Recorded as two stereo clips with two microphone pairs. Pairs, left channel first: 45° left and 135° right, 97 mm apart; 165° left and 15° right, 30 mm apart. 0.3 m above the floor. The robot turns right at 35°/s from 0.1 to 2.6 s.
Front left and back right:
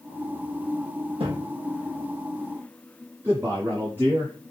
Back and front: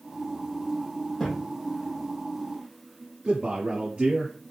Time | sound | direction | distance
1.2 | a thud | 120° right | 4 m
3.2 | a man speaking | 65° right | 6 m